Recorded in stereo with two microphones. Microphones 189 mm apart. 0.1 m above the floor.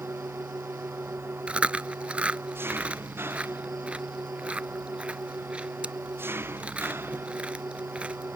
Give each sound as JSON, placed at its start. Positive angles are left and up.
{"t": 0.0, "sound": "an engine running", "side_deg": -10}
{"t": 1.5, "sound": "chewing", "side_deg": -5}